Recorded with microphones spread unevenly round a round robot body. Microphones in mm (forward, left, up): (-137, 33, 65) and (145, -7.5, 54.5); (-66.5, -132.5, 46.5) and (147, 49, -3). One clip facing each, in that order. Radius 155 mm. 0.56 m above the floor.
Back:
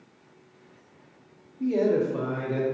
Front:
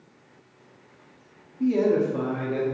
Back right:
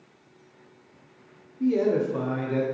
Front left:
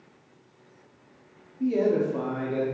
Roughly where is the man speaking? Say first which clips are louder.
Front 2 dB, back right 1 dB; ahead right.